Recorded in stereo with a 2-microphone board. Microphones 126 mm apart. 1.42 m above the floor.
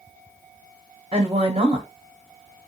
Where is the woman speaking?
50° right (ahead or behind), 0.8 m.